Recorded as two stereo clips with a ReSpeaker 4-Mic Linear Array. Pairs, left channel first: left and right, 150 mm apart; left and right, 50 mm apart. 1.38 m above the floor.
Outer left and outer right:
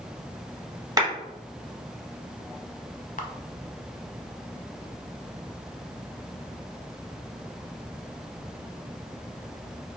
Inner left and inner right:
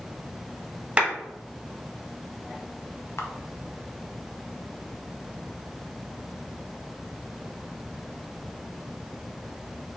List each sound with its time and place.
1.0 s a clap: 25° right (ahead or behind), 1.3 m
3.2 s a camera shutter: 60° left (ahead or behind), 0.5 m